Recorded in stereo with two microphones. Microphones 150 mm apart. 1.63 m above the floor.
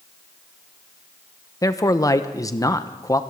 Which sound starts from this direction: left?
A man speaking, at 1.6 s.